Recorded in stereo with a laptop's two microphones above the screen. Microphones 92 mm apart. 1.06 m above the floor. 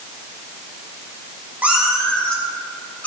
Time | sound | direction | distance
1.6 | a cat meowing | 20° right (ahead or behind) | 0.8 m